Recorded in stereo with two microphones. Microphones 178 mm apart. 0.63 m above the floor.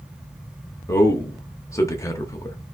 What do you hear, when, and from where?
0.9 s a man speaking: 15° left (ahead or behind), 0.6 m